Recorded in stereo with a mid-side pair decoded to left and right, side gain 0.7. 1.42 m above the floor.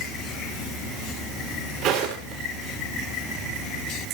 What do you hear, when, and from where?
1.8 s footsteps: 60° right, 7.5 m